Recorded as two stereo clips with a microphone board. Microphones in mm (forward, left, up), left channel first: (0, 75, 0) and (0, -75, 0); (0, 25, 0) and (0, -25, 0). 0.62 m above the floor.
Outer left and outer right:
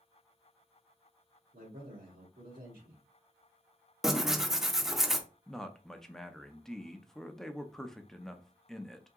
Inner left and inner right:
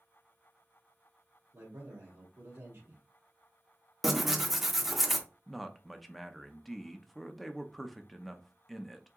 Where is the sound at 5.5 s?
5° left (ahead or behind), 0.5 m.